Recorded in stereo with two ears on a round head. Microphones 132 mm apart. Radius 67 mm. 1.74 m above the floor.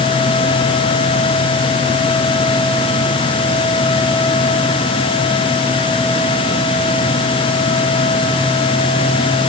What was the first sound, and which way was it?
Only background noise.